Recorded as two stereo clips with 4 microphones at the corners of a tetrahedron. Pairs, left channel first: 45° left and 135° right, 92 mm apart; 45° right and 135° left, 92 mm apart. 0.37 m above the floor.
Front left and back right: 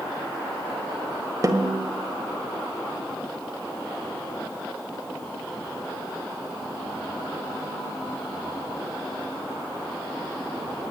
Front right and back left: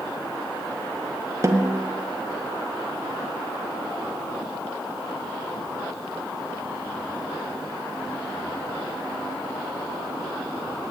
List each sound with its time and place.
1.4 s a snare drum: 175° right, 1.6 m